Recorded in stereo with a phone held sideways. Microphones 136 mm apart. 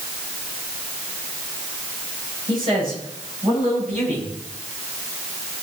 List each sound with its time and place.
2.5 s a man speaking: 35° right (ahead or behind), 6.5 m; by 4.3 s 55° right (ahead or behind), 6.5 m